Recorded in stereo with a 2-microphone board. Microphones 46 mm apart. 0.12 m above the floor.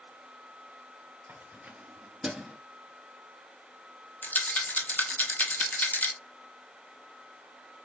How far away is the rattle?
About 0.8 m.